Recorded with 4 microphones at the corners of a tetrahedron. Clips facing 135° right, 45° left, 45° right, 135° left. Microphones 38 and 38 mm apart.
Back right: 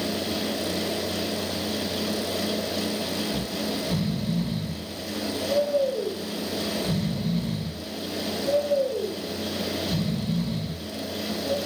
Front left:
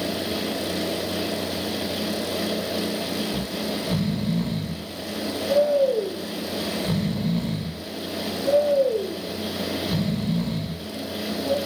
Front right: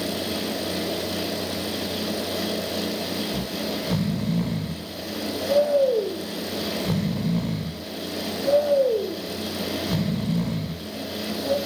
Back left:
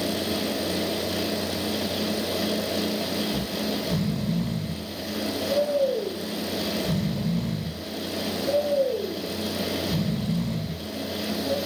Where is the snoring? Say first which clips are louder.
Front left 1 dB, even; 20° right, 2.5 m.